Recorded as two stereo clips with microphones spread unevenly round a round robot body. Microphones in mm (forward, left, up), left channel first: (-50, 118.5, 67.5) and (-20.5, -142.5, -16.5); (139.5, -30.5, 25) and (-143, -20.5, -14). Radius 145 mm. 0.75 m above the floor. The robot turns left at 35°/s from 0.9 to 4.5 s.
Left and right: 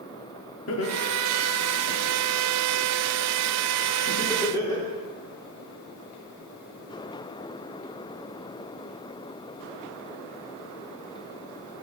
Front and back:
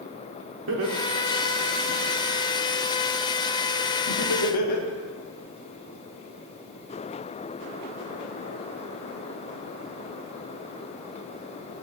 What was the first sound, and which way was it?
Laughter, 140° left.